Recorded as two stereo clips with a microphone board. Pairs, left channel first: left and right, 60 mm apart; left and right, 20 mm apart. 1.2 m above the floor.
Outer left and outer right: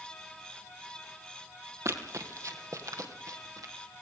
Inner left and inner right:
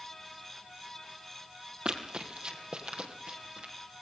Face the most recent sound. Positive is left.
turn(degrees=-70)  # may be behind; listen again after turning